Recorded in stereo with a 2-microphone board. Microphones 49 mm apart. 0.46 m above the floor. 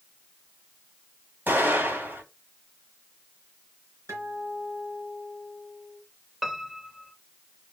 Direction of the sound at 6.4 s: 5° right (ahead or behind).